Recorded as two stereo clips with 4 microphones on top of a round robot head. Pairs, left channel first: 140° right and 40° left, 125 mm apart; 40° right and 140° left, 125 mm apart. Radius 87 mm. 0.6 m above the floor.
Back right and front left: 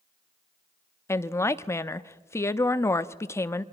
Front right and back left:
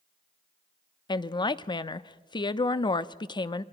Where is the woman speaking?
80° right, 0.7 m.